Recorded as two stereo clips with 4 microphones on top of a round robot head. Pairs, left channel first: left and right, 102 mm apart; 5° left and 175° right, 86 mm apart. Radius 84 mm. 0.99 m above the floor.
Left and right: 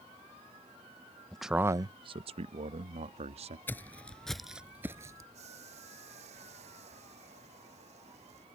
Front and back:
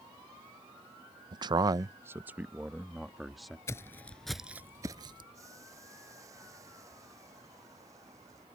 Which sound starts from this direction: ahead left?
Footsteps, at 3.7 s.